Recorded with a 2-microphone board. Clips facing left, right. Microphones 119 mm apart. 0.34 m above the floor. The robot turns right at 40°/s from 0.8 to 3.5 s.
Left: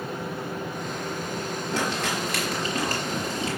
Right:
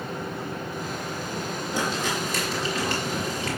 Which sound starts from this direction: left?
Crumpling, at 1.7 s.